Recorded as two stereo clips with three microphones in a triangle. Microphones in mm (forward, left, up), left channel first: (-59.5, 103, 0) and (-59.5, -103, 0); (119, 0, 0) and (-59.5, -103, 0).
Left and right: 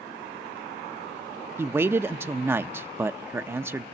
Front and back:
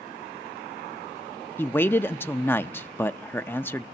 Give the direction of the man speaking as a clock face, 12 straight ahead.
1 o'clock.